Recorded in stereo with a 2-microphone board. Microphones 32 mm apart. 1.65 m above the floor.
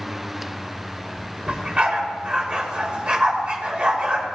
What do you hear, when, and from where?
1.5 s a dog barking: 30° right (ahead or behind), 2.5 m